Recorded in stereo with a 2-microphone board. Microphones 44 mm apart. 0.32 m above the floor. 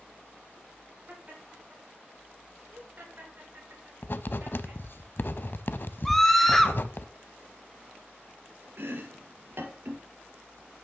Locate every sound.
1.1 s laughter: 30° right (ahead or behind), 3.5 m; by 4.8 s 50° right (ahead or behind), 6 m
4.0 s writing: 50° left (ahead or behind), 0.5 m
6.0 s a scream: 5° left (ahead or behind), 1.4 m
8.8 s chopping: 60° right (ahead or behind), 1.6 m